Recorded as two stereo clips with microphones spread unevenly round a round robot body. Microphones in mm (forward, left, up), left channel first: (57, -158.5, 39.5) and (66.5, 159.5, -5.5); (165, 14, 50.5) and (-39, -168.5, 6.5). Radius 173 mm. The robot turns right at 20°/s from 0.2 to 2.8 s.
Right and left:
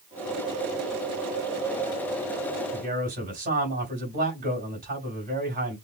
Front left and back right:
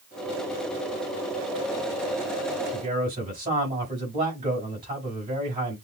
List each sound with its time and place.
2.7 s a man speaking: 150° left, 3.5 m